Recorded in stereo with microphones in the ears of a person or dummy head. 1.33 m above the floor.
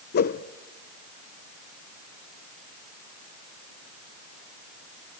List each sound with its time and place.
0.1 s a whoosh: 55° left (ahead or behind), 0.6 m